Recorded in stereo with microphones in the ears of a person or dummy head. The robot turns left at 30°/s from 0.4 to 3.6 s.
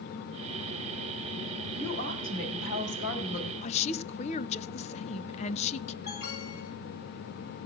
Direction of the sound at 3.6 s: 40° left (ahead or behind).